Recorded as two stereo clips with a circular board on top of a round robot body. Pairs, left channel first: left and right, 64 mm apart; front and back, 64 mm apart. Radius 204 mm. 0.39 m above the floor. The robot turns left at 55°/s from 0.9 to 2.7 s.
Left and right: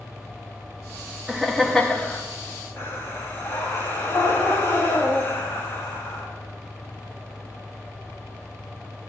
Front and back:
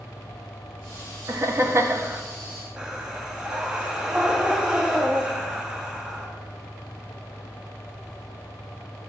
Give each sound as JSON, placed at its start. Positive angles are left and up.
{"t": 1.3, "sound": "laughter", "azimuth_deg": -170, "distance_m": 0.9}
{"t": 2.8, "sound": "breathing", "azimuth_deg": 115, "distance_m": 1.4}